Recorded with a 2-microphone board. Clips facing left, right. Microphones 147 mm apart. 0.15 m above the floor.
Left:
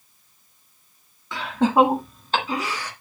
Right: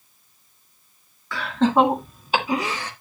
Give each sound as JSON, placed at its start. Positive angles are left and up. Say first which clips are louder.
{"t": 1.3, "sound": "laughter", "louder": "even", "side_deg": 20, "distance_m": 2.0}